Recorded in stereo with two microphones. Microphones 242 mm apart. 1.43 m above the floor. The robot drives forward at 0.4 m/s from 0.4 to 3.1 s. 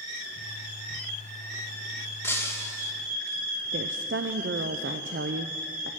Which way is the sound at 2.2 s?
10° left (ahead or behind).